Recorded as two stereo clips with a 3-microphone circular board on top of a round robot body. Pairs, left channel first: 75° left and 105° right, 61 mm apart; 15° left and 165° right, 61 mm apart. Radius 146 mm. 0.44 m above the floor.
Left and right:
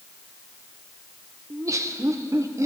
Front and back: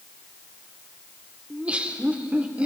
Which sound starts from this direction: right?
Laughter, at 1.5 s.